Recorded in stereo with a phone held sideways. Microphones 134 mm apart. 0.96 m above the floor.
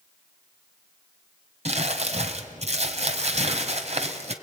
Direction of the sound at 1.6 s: 55° right (ahead or behind).